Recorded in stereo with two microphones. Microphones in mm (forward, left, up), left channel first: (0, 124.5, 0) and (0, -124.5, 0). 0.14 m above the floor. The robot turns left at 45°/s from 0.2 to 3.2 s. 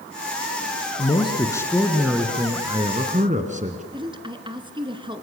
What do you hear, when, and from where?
1.0 s a man speaking: 45° left, 1.7 m; by 3.8 s 55° right, 1.7 m
3.9 s a woman speaking: 20° right (ahead or behind), 1.6 m